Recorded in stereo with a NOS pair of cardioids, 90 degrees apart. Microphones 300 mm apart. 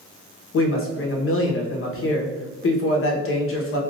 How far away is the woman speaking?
About 1.1 m.